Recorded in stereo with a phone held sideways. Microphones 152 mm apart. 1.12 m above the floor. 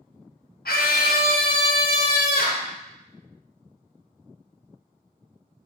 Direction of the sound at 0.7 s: 80° left.